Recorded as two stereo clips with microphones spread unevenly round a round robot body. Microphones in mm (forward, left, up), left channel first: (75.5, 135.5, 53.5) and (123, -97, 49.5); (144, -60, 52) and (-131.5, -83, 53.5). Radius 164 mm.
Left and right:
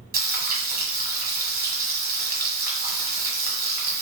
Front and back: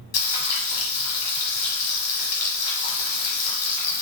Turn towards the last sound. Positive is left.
turn(degrees=-25)